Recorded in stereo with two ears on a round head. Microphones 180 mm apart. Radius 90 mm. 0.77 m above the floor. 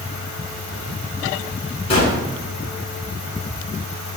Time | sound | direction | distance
1.9 | a gunshot | 30° left (ahead or behind) | 8 m